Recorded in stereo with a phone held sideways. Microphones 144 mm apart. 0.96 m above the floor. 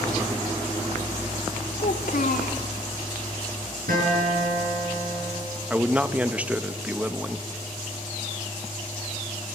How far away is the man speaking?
About 0.9 m.